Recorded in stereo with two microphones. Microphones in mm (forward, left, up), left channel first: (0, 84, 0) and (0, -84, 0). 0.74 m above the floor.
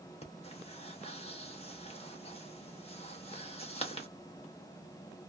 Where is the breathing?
35° left (ahead or behind), 0.9 m.